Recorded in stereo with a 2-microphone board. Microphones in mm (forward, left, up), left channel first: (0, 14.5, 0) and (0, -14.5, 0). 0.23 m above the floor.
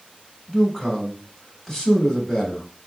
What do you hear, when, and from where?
0.5 s a man speaking: 20° left (ahead or behind), 0.9 m